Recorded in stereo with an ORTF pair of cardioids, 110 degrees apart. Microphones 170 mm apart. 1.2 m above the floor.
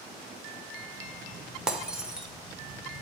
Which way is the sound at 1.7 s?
5° right.